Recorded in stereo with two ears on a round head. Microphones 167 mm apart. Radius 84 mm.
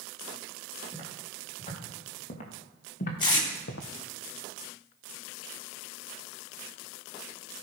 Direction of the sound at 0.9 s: 30° left (ahead or behind).